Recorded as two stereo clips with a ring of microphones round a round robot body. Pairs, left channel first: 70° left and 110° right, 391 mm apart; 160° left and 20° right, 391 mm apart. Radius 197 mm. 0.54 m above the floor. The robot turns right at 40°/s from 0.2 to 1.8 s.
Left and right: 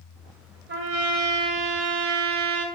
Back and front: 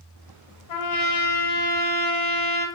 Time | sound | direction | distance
0.7 | a trumpet | 175° right | 1.8 m